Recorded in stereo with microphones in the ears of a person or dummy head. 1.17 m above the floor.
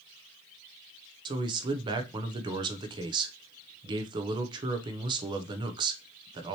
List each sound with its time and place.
1.2 s a man speaking: 25° right (ahead or behind), 0.7 m